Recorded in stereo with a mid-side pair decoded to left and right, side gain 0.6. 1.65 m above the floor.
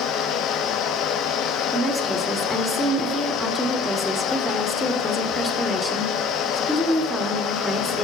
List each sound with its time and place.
0.0 s a fan: 60° left, 0.9 m
1.7 s a woman speaking: 5° left, 3 m